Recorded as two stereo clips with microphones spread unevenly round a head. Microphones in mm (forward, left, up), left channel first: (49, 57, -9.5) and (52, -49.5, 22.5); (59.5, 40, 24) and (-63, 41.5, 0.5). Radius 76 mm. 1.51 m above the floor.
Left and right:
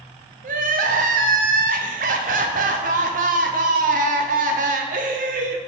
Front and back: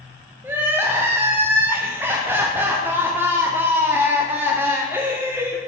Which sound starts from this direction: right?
Crying, at 0.4 s.